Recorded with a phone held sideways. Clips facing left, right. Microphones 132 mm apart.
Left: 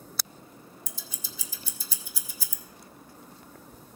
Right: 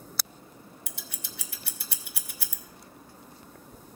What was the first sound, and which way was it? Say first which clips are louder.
Scissors: even; 70° right (ahead or behind).